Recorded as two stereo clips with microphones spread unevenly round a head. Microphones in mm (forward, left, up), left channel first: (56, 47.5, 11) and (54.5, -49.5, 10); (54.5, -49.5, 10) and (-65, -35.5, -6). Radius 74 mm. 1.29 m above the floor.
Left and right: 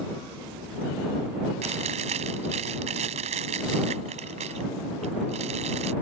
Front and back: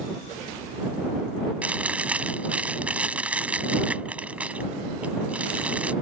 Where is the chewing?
105° right.